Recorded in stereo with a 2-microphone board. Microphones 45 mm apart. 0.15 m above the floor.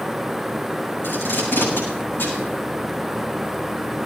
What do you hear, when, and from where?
1.0 s tape being pulled: 55° left (ahead or behind), 9.5 m